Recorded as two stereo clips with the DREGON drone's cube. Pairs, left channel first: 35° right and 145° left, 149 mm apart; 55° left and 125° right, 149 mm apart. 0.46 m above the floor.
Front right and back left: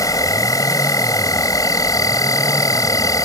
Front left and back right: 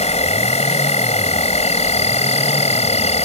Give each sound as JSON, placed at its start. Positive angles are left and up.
{"t": 0.0, "sound": "an insect", "azimuth_deg": 25}